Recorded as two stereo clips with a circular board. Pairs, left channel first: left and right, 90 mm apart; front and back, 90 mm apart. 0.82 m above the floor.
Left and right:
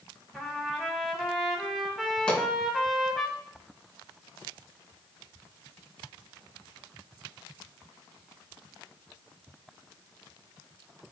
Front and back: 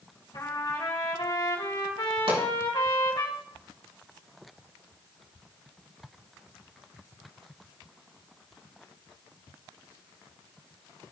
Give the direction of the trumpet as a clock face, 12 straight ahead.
12 o'clock.